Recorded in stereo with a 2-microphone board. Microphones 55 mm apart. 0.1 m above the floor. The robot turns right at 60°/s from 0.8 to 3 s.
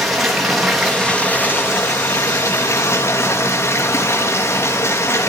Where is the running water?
5° right, 3 m; by 5.3 s 130° left, 3 m.